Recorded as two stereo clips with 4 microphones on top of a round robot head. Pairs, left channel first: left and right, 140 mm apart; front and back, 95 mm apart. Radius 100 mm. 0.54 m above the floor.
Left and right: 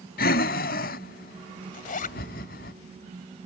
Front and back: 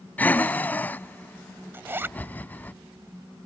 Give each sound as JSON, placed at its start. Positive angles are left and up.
{"t": 0.2, "sound": "breathing", "azimuth_deg": 70}
{"t": 1.7, "sound": "a zipper", "azimuth_deg": 110}